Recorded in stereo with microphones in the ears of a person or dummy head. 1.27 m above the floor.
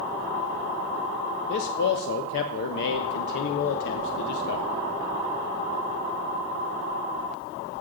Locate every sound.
1.5 s a man speaking: 65° left (ahead or behind), 0.6 m